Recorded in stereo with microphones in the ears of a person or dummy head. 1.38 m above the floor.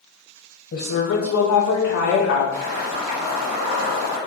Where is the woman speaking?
55° left (ahead or behind), 0.6 m; by 2.4 s 45° left (ahead or behind), 1.3 m.